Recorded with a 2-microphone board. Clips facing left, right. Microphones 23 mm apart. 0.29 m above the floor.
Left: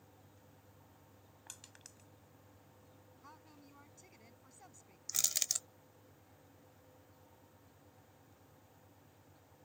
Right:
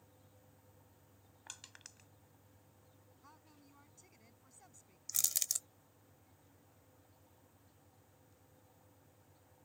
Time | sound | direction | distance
1.5 | crushing | 20° right (ahead or behind) | ?
3.2 | a woman speaking | 15° left (ahead or behind) | ?
5.1 | crushing | 20° left (ahead or behind) | ?